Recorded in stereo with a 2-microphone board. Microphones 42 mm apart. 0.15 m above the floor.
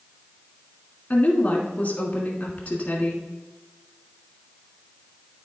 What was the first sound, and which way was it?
A woman speaking, 35° left (ahead or behind).